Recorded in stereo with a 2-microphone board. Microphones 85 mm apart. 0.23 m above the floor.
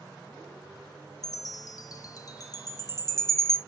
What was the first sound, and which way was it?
A chime, 45° left (ahead or behind).